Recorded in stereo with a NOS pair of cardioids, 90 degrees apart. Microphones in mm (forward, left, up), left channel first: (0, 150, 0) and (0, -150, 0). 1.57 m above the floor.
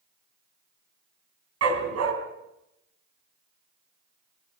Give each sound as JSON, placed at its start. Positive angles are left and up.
{"t": 1.6, "sound": "a dog barking", "azimuth_deg": -60, "distance_m": 4.0}